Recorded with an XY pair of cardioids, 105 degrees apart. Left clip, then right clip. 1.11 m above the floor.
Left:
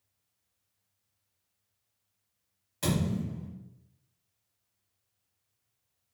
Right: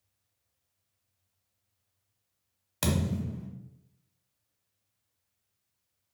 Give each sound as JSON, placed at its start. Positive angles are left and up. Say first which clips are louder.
{"t": 2.8, "sound": "a thud", "louder": "even", "azimuth_deg": -70, "distance_m": 1.1}